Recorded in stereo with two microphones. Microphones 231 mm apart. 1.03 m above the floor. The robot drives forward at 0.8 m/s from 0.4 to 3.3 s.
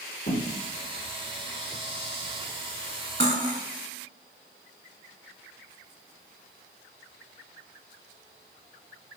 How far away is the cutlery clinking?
About 2.0 m.